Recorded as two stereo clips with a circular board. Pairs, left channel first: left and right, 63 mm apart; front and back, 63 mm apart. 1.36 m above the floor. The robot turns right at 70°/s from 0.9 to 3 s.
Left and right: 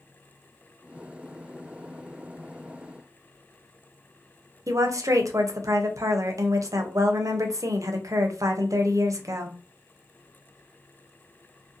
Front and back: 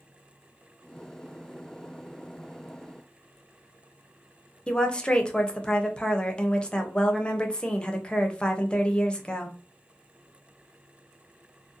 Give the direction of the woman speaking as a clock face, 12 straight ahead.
2 o'clock.